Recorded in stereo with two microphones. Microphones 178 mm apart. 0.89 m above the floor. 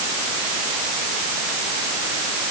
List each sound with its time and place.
Only background noise.